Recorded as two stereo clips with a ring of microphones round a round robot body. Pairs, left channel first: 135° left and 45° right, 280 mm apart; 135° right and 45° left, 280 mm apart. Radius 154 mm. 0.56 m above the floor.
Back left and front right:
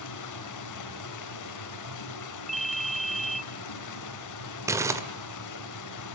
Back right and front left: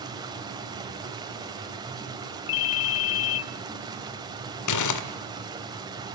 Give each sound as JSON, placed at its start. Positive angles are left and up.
{"t": 0.0, "sound": "running water", "azimuth_deg": 120, "distance_m": 3.0}
{"t": 2.5, "sound": "a ringtone", "azimuth_deg": -135, "distance_m": 0.5}
{"t": 4.7, "sound": "crumpling", "azimuth_deg": -125, "distance_m": 1.7}